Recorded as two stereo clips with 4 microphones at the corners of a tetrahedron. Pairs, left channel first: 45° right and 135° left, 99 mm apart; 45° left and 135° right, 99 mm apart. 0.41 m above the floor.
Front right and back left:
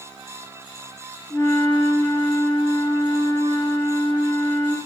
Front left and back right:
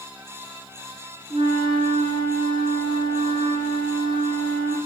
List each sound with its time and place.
1.3 s a flute: 110° right, 3 m